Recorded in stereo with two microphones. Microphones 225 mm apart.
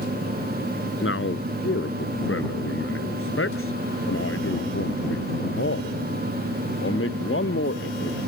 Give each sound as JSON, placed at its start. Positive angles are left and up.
{"t": 1.0, "sound": "a man speaking", "side_deg": 70}